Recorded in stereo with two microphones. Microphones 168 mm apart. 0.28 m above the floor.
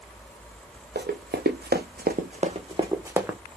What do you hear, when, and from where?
0.9 s running footsteps: 75° right (ahead or behind), 1.0 m; by 3.4 s 5° right (ahead or behind), 0.8 m